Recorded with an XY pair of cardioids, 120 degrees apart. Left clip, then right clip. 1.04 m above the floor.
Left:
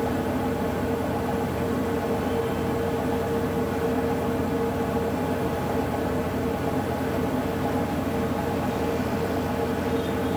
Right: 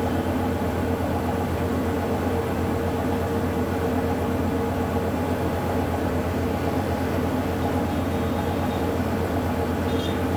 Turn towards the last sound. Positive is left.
turn(degrees=-10)